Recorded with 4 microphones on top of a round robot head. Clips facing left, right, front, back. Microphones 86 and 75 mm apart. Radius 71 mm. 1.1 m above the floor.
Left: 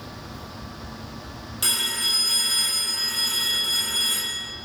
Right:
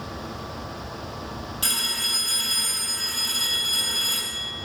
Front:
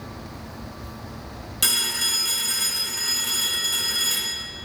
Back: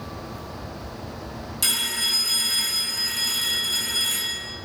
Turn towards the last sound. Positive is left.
turn(degrees=30)